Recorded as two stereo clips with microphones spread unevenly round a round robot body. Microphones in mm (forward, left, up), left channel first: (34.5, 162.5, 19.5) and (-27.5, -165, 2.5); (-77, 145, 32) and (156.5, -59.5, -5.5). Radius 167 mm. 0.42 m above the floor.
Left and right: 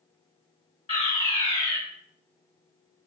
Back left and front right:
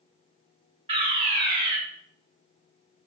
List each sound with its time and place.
0.9 s a fire alarm: 15° left, 3 m